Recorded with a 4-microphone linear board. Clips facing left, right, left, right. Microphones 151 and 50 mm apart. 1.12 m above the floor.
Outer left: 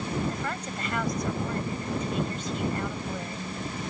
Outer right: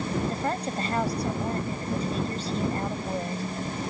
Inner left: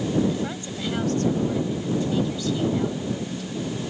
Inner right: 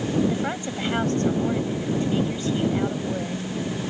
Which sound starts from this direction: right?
A woman speaking, at 0.3 s.